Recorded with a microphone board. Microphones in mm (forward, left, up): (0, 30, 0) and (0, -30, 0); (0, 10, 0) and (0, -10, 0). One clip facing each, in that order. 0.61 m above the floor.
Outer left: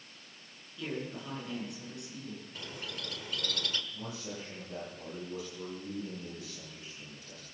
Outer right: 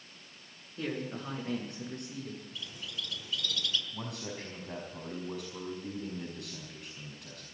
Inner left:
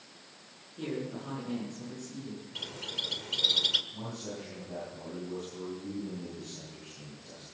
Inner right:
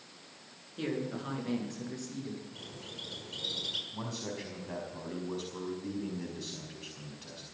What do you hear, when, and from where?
0.8 s a man speaking: 40° right (ahead or behind), 9 m; by 2.5 s 45° right (ahead or behind), 10 m
2.5 s a bird: 60° left (ahead or behind), 1.4 m
3.9 s a man speaking: 70° right (ahead or behind), 5 m